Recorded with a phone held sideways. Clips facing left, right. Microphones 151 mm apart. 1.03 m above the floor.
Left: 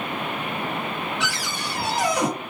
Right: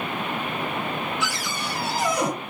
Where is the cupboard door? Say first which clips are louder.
Even; 80° left, 2 m.